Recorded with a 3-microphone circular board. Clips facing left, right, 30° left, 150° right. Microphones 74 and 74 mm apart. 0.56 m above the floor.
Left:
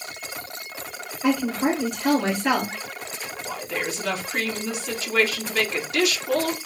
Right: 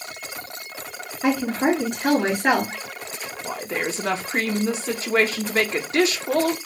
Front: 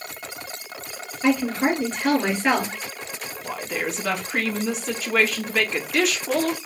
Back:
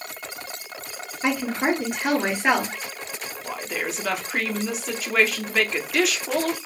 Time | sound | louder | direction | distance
1.2 | a woman speaking | right 1 dB, front 2 dB | 80° right | 3.5 m
3.4 | a woman speaking | right 3 dB, front 2 dB | 65° right | 0.9 m